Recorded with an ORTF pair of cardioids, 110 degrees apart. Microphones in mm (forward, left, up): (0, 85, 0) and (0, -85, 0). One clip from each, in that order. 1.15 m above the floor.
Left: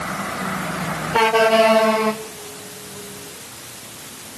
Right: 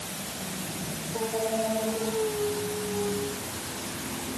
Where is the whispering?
I don't hear whispering.